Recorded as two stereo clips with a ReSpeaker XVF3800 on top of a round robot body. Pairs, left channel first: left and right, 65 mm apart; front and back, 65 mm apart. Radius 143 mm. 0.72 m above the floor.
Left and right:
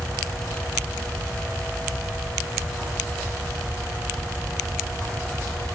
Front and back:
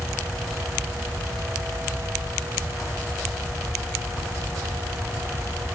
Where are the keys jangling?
I don't hear keys jangling.